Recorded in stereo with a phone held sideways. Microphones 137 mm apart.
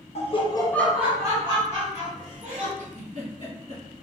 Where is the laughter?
50° left (ahead or behind), 0.8 m; by 2.7 s 60° right (ahead or behind), 1.7 m.